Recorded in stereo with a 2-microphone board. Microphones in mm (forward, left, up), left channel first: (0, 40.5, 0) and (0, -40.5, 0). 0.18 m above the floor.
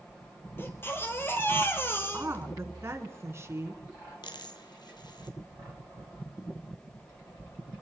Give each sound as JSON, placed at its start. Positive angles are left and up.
{"t": 0.6, "sound": "a baby crying", "side_deg": 30, "distance_m": 2.0}
{"t": 2.1, "sound": "a woman speaking", "side_deg": -35, "distance_m": 2.0}
{"t": 4.2, "sound": "a dropped coin", "side_deg": 65, "distance_m": 1.7}